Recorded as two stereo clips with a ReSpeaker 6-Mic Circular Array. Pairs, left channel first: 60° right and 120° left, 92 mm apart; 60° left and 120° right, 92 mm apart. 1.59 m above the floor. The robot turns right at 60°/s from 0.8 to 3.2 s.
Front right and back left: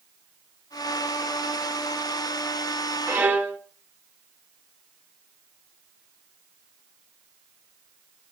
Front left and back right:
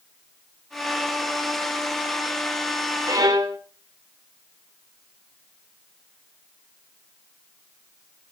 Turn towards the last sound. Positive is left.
turn(degrees=-170)